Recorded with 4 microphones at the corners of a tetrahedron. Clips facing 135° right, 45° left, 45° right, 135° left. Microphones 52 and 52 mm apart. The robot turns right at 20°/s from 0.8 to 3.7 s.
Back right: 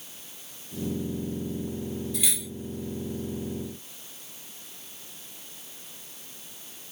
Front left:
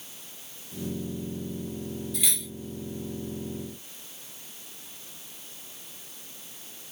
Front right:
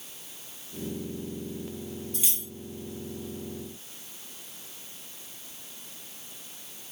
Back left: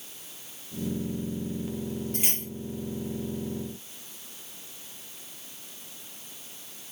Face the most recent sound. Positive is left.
turn(degrees=165)